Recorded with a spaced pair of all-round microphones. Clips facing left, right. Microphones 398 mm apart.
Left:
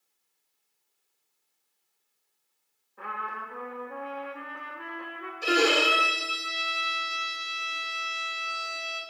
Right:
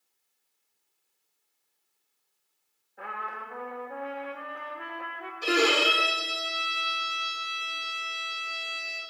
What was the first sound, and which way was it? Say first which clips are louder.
A trumpet: even; 15° left (ahead or behind).